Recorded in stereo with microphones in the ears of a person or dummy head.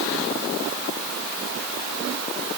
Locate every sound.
Only background noise.